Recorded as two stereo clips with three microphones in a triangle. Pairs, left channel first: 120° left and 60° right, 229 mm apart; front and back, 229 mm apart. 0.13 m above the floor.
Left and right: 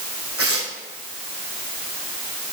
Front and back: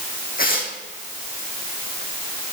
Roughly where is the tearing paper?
Ahead right.